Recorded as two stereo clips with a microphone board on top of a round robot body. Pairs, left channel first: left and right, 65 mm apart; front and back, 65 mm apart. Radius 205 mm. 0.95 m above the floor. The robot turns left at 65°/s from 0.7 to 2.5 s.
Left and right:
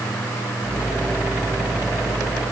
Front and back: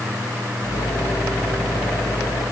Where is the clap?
No clap in this recording.